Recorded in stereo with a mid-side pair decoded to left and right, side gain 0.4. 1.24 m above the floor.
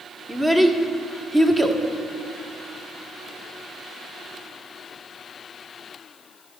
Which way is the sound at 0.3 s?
15° right.